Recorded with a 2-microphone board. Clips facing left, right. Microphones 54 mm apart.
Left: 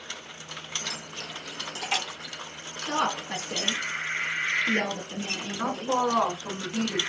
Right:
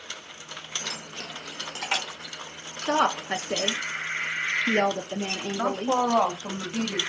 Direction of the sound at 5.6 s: 60° right (ahead or behind).